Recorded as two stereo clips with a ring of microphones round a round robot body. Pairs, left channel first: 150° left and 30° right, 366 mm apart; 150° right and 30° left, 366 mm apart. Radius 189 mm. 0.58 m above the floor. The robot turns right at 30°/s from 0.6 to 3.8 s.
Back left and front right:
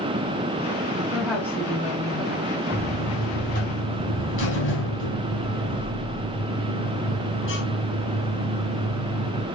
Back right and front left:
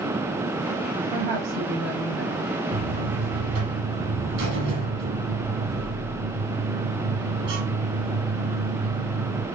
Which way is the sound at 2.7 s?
60° left.